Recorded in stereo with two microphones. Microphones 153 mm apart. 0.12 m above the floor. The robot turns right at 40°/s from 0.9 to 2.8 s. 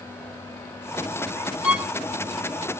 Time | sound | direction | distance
1.6 | a violin | 5° right (ahead or behind) | 0.7 m